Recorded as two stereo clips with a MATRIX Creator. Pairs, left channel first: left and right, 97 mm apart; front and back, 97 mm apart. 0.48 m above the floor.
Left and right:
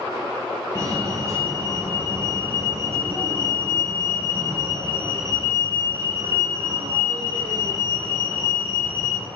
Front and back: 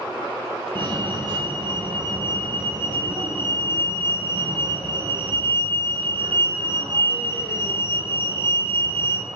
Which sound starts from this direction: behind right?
A fire alarm, at 0.8 s.